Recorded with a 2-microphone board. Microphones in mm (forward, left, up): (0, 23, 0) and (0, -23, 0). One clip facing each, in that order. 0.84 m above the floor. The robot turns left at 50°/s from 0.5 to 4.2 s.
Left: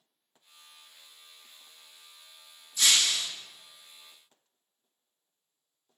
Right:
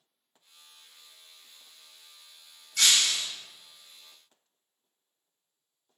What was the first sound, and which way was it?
Breaking glass, 65° right (ahead or behind).